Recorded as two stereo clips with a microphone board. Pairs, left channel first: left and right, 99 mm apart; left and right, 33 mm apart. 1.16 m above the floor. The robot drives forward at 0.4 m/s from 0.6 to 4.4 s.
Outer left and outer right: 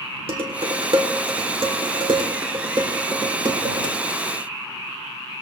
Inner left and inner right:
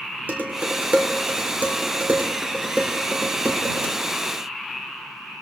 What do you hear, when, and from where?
0.3 s dishes clattering: 70° right (ahead or behind), 2.5 m; by 3.9 s 50° right (ahead or behind), 3 m